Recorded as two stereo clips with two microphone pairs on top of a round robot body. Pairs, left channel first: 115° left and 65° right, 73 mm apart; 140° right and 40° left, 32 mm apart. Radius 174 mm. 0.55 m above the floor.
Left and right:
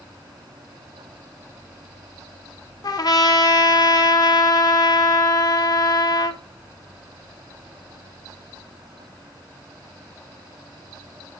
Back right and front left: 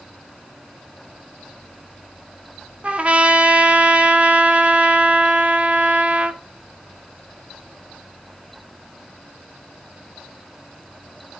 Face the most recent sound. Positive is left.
turn(degrees=90)